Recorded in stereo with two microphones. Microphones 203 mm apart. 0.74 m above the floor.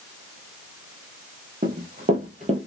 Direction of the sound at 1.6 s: 55° right (ahead or behind).